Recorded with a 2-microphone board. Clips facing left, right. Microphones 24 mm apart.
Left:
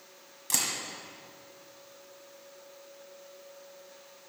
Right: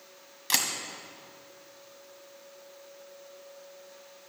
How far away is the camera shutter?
About 1.2 m.